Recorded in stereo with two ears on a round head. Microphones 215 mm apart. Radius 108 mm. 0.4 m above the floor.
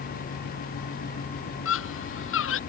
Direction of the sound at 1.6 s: 60° left (ahead or behind).